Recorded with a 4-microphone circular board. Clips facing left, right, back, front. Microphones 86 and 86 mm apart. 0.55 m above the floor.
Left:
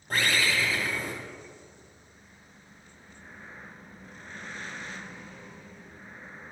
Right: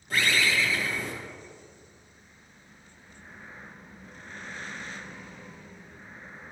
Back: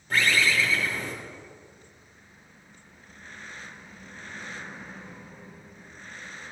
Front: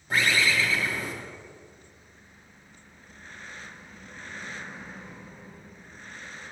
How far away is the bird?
About 1.9 m.